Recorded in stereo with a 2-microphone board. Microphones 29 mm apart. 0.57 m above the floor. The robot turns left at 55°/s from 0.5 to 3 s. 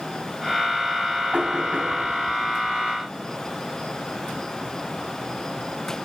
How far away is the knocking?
About 2.5 m.